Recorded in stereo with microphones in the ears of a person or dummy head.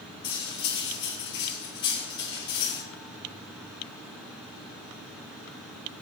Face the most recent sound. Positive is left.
turn(degrees=25)  # may be behind; listen again after turning